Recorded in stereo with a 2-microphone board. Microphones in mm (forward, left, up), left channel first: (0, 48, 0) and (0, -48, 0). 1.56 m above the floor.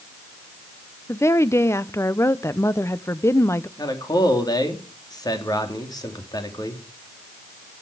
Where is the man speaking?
45° left (ahead or behind), 3 m.